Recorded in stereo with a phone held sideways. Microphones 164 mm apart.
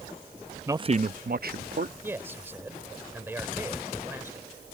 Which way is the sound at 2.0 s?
15° right (ahead or behind).